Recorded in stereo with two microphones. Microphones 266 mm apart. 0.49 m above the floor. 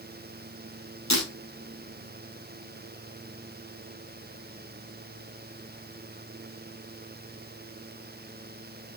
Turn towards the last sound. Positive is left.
turn(degrees=90)